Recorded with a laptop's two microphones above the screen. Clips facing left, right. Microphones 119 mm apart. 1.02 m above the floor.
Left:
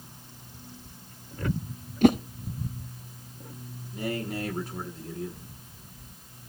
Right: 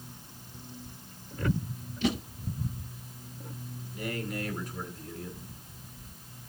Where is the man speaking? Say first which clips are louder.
Left 4 dB; 30° left (ahead or behind), 9 m.